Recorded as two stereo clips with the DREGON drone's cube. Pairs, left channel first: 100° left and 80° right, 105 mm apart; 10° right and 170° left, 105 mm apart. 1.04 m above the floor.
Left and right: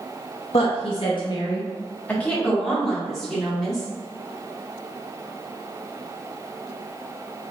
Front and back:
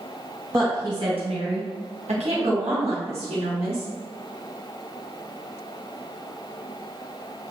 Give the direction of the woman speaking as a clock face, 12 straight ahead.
9 o'clock.